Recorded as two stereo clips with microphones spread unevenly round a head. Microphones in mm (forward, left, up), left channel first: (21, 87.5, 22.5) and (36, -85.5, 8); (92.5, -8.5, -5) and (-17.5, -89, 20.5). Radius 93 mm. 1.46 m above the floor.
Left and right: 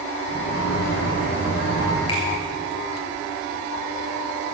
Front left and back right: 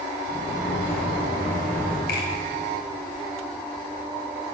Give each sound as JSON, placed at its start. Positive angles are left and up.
{"t": 0.3, "sound": "a sliding door", "azimuth_deg": 90, "distance_m": 4.5}
{"t": 2.1, "sound": "a finger snap", "azimuth_deg": 40, "distance_m": 6.0}